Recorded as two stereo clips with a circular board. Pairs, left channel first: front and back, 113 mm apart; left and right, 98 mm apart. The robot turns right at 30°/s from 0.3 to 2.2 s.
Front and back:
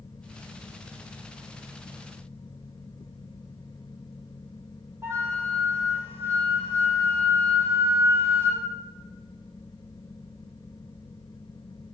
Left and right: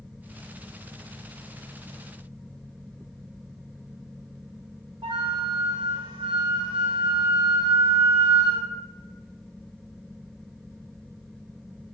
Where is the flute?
115° right, 4.5 m.